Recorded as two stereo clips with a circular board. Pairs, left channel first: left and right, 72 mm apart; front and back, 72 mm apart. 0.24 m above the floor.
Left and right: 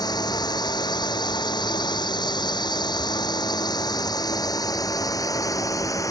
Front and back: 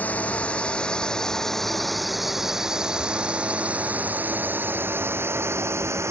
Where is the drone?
70° left; by 6.1 s 130° left.